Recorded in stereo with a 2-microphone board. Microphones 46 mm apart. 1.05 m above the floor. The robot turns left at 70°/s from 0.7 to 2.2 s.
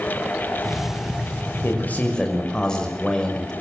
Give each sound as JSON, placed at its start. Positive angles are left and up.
{"t": 1.6, "sound": "a man speaking", "azimuth_deg": 55, "distance_m": 5.5}